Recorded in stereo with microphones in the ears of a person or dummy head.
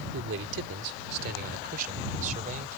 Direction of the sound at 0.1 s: 80° right.